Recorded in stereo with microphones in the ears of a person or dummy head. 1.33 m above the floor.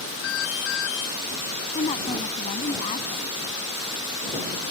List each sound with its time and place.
0.2 s an alarm: 75° left (ahead or behind)
1.8 s a woman speaking: 35° left (ahead or behind)